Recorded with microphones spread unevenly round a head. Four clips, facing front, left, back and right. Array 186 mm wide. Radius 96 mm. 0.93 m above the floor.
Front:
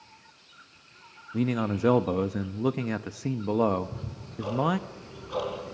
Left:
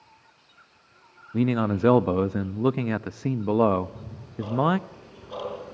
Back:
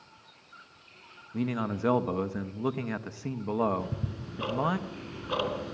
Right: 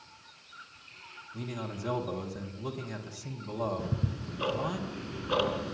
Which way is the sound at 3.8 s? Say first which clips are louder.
Even, even; 110° right.